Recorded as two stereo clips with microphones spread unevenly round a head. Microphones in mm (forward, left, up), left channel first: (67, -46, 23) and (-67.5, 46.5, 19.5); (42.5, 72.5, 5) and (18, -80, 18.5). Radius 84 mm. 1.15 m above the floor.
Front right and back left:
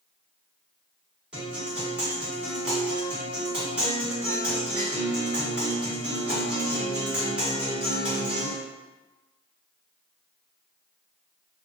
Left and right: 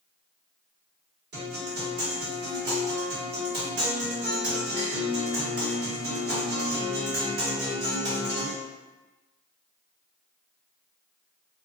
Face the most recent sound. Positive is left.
turn(degrees=-130)